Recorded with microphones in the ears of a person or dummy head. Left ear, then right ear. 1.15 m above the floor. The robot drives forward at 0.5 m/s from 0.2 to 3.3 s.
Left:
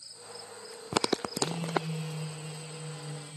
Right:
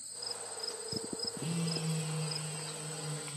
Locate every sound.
1.4 s a phone buzzing: 15° left (ahead or behind), 0.7 m; by 3.4 s 5° left (ahead or behind), 1.6 m